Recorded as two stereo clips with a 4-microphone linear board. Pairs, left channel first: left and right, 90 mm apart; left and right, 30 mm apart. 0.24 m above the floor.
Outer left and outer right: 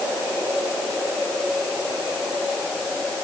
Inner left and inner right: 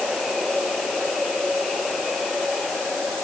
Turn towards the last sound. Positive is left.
No sound to turn to.